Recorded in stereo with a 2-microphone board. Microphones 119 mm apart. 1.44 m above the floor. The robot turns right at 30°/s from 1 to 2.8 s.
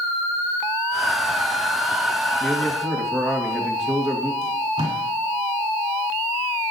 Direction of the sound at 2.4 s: 10° left (ahead or behind).